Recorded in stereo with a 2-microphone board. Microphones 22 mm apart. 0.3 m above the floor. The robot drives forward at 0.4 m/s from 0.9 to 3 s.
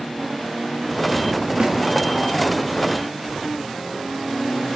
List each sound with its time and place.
1.6 s a snare drum: 70° right (ahead or behind), 1.9 m; by 1.8 s 75° right (ahead or behind), 1.9 m